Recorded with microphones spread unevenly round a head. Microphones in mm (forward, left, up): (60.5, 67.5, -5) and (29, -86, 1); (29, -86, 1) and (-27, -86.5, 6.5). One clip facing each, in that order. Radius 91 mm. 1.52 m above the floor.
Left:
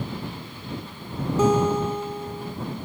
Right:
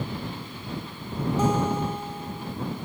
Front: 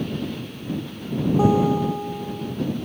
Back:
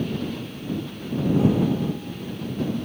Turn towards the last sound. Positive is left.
turn(degrees=65)